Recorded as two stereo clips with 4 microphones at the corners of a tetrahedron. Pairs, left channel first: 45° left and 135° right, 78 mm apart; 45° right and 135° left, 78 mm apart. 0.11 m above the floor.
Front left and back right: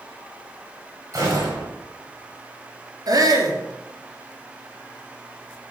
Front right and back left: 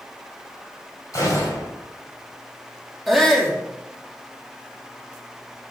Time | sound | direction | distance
1.1 | a gunshot | 90° right | 4 m
3.1 | a shout | 135° right | 2.5 m